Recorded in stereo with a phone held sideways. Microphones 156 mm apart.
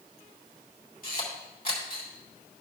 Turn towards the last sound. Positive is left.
turn(degrees=65)  # may be behind; listen again after turning